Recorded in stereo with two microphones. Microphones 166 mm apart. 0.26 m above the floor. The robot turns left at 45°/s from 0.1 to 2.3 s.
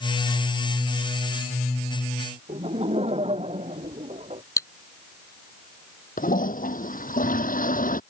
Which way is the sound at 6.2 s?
55° left (ahead or behind).